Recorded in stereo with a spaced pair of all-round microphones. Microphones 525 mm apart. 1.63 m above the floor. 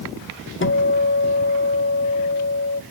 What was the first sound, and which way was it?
A guitar, 25° left (ahead or behind).